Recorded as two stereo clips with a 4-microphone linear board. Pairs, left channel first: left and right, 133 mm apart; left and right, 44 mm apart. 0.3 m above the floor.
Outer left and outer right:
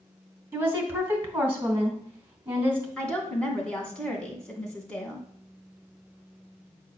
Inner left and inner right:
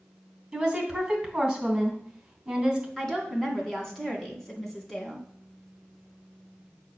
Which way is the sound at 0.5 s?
15° right (ahead or behind).